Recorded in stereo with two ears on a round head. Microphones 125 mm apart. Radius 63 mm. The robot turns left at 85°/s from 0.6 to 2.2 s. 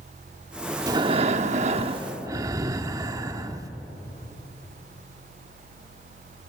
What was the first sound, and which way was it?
Breathing, 30° right.